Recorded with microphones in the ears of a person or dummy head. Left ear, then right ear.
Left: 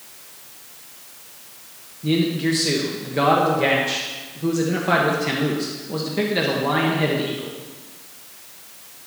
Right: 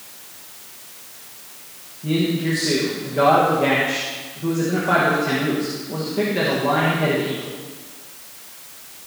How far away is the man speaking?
About 1.3 m.